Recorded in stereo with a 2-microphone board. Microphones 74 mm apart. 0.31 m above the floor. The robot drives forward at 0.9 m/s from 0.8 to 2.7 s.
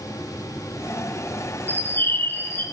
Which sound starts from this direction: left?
A bird, at 1.7 s.